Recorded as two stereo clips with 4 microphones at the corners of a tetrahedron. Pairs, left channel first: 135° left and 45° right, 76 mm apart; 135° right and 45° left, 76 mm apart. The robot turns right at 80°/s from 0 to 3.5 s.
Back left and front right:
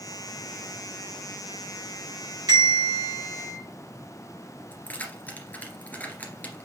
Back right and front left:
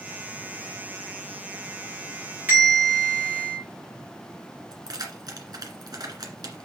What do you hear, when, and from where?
2.5 s a bell: 20° right, 5.5 m; by 3.6 s 65° left, 5.5 m
4.7 s keys jangling: 70° left, 2 m